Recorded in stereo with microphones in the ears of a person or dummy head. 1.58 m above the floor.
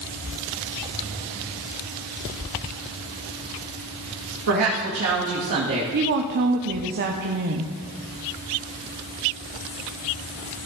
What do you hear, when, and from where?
4.5 s a woman speaking: 80° right, 2 m; by 5.8 s 55° right (ahead or behind), 1.5 m
5.9 s a woman speaking: 55° right (ahead or behind), 0.8 m